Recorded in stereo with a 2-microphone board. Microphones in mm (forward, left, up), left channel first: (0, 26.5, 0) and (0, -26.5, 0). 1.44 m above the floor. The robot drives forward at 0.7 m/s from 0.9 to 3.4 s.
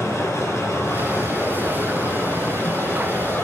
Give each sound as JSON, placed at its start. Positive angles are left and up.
{"t": 0.0, "sound": "running water", "side_deg": 70, "distance_m": 6.0}